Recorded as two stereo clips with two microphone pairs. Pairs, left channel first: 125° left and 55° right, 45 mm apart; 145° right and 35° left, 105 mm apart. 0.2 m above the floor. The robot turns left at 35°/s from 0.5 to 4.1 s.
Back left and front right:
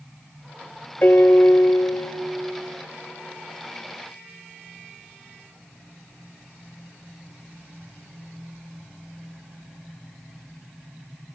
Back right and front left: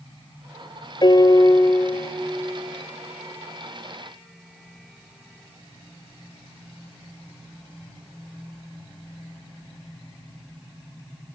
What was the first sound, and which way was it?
A piano, 170° left.